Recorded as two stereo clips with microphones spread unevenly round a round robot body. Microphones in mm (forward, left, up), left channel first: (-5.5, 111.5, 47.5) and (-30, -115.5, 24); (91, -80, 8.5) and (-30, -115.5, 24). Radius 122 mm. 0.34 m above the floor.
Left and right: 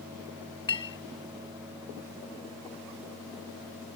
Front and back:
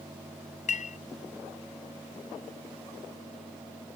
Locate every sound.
0.7 s a clink: 10° left